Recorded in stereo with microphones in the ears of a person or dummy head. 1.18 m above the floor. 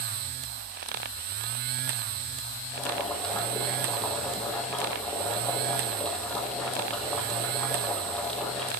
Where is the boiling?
5° left (ahead or behind), 6 m.